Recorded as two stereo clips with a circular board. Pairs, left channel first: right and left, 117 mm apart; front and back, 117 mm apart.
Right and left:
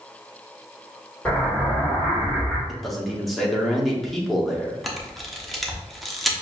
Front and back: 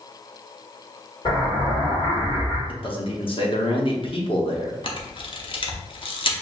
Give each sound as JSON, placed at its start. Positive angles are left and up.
{"t": 1.2, "sound": "an explosion", "azimuth_deg": -15, "distance_m": 1.8}
{"t": 2.7, "sound": "a man speaking", "azimuth_deg": 0, "distance_m": 0.9}
{"t": 4.8, "sound": "a camera shutter", "azimuth_deg": 0, "distance_m": 0.7}